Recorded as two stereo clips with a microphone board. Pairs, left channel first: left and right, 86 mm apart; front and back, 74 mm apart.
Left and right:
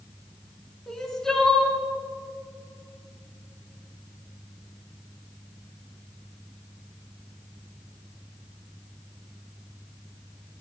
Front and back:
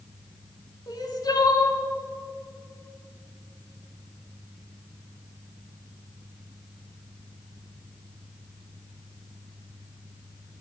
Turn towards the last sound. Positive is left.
turn(degrees=5)